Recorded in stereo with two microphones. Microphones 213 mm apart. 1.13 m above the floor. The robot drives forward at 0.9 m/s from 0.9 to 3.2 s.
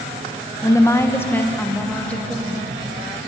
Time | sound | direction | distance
0.6 | a woman speaking | 15° left (ahead or behind) | 0.9 m